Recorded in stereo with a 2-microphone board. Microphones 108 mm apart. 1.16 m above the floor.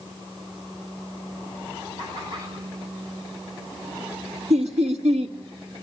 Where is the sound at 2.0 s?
45° right (ahead or behind), 8 m.